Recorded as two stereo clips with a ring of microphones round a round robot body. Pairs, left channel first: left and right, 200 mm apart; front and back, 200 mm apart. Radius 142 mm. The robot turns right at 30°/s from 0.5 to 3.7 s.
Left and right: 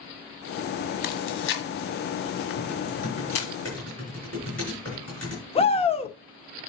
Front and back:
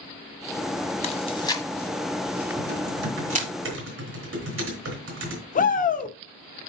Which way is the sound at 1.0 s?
55° left.